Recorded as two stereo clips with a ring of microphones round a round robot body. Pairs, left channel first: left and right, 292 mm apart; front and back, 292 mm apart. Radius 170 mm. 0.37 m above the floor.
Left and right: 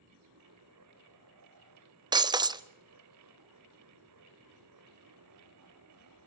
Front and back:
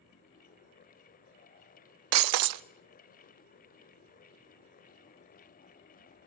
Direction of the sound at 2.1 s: 165° right.